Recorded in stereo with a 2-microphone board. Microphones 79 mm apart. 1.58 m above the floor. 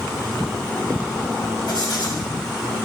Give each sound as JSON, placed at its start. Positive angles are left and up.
{"t": 1.7, "sound": "writing", "side_deg": 70, "distance_m": 5.5}